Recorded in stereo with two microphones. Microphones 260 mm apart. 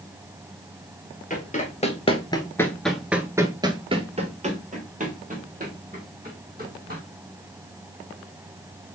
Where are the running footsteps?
30° left (ahead or behind), 1.1 m; by 7.0 s 35° right (ahead or behind), 2.5 m.